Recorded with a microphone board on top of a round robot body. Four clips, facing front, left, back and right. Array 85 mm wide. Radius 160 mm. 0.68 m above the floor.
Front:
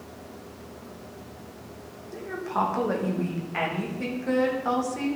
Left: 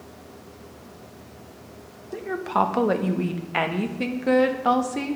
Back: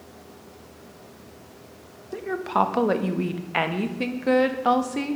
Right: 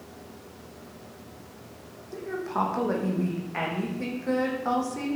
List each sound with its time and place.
2.1 s a woman speaking: 140° left, 1.4 m